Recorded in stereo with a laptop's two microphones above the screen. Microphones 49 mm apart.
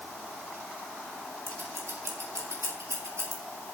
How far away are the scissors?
About 6.5 m.